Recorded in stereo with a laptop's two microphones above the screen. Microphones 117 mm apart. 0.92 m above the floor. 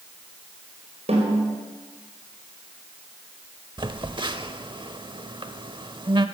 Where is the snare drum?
65° right (ahead or behind), 5 m.